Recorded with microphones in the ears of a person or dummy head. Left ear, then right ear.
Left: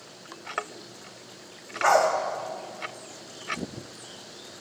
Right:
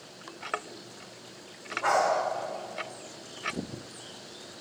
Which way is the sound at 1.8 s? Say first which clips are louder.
Left 5 dB; 5° left (ahead or behind).